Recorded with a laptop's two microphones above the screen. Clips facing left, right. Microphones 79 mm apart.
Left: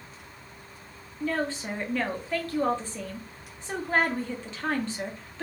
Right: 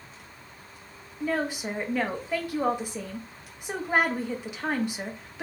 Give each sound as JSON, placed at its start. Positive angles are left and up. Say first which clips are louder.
{"t": 1.2, "sound": "a woman speaking", "louder": "right 1 dB", "side_deg": -15, "distance_m": 1.0}